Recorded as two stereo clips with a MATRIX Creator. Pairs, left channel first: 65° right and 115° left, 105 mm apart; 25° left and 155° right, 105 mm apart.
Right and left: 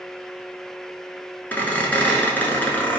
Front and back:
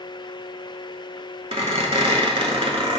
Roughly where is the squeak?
Behind right.